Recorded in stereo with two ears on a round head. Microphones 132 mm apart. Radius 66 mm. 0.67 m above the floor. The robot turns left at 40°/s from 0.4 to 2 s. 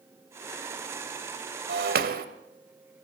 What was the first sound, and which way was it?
Breaking glass, 80° right.